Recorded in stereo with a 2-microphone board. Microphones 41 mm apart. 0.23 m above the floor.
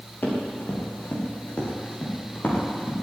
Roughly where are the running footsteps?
Left.